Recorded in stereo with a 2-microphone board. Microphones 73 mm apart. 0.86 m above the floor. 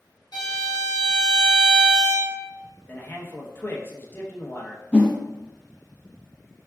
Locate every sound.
0.3 s a violin: 65° left (ahead or behind), 1.1 m
2.9 s a man speaking: 30° left (ahead or behind), 0.7 m
4.9 s a whoosh: 15° left (ahead or behind), 0.7 m